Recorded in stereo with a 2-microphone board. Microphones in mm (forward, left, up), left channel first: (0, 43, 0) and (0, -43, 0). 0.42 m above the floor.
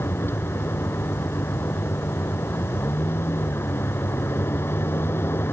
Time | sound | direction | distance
0.0 | a vehicle | 25° left (ahead or behind) | ?